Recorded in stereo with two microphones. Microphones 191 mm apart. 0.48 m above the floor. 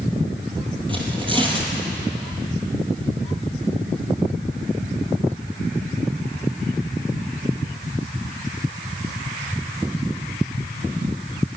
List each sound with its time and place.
0.9 s tearing paper: 25° right (ahead or behind), 3 m